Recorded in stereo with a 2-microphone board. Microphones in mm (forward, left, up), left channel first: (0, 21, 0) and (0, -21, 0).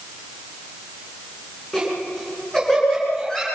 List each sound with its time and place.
1.7 s laughter: 10° left (ahead or behind), 9.5 m